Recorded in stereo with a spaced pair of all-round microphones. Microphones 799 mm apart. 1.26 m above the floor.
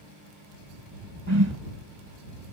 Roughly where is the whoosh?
Right.